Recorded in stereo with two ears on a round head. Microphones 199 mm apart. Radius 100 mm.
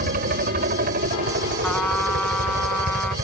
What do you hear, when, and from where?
0.0 s a helicopter: 40° right (ahead or behind)
1.6 s a trumpet: 5° left (ahead or behind)